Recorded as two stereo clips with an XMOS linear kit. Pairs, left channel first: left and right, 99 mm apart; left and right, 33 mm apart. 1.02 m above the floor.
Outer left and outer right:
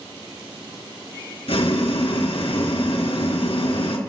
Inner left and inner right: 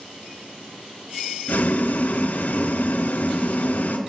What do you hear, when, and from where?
1.5 s boiling: 80° left, 3.5 m